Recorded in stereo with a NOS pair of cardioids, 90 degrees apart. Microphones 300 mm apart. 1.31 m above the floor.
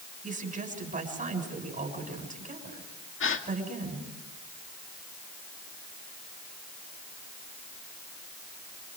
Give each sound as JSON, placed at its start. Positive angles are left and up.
{"t": 0.2, "sound": "a woman speaking", "azimuth_deg": -25, "distance_m": 7.0}
{"t": 3.2, "sound": "a gasp", "azimuth_deg": 40, "distance_m": 2.0}